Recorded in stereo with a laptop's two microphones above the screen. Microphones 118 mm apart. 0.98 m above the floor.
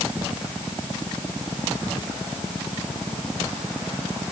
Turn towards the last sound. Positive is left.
No sound to turn to.